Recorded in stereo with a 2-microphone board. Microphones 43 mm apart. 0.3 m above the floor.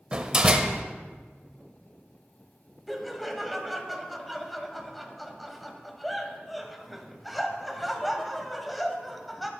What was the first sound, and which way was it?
A door slam, 20° right (ahead or behind).